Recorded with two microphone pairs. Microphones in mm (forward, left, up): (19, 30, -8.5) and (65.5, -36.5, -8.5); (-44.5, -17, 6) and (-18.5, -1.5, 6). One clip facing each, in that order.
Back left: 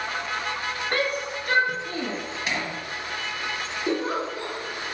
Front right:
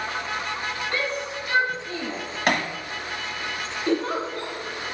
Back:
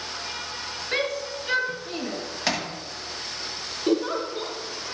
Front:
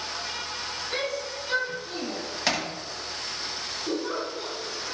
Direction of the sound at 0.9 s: 160° left.